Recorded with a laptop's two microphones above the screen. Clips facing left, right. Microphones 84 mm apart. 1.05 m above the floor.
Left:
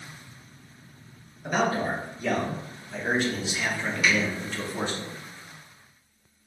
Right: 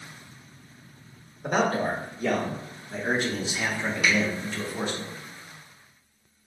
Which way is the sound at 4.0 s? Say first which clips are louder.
Left 1 dB; 65° right (ahead or behind).